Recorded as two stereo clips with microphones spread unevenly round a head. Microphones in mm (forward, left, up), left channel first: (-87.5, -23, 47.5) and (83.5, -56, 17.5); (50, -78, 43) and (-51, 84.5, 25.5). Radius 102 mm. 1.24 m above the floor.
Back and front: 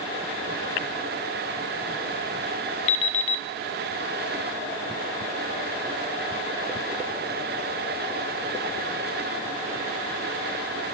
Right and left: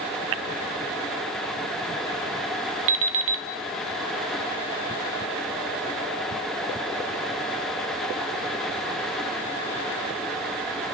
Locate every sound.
2.9 s an alarm clock: 145° left, 1.2 m